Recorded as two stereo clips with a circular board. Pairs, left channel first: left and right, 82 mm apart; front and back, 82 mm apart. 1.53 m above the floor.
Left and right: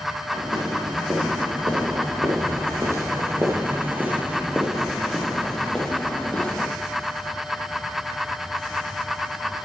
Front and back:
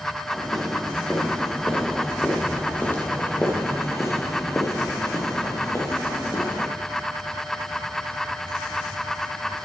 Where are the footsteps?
90° right, 4 m; by 6.7 s 25° left, 3 m.